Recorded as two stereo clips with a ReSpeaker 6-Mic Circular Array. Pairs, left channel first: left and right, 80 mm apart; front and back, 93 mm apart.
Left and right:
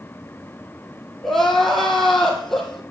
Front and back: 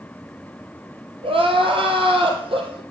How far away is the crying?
About 3 m.